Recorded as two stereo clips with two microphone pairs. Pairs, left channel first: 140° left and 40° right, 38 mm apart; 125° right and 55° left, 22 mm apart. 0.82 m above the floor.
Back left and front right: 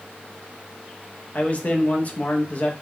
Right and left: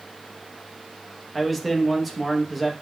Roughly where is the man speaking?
Behind left.